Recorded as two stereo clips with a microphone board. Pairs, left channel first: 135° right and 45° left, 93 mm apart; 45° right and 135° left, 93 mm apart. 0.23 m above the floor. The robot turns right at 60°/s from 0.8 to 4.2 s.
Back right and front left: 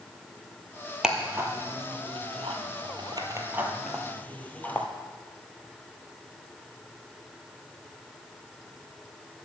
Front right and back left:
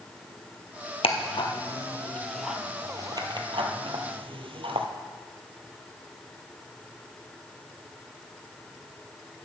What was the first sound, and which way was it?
Ticking, 35° right.